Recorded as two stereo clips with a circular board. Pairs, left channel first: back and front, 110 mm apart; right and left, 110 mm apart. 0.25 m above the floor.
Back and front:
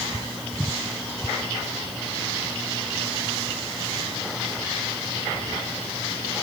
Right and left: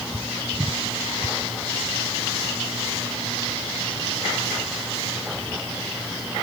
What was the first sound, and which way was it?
Only background noise.